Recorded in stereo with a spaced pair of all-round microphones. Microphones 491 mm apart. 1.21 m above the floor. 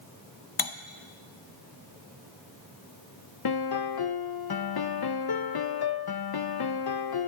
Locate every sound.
0.6 s cutlery clinking: 45° left (ahead or behind), 0.7 m
3.5 s a piano: 50° left (ahead or behind), 0.6 m